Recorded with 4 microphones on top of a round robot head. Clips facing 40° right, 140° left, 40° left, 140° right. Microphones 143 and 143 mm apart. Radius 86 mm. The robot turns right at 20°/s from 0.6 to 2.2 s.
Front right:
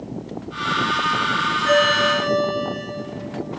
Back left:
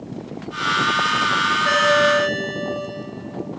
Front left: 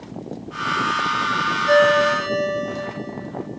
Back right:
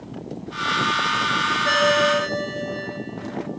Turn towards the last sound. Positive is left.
turn(degrees=-150)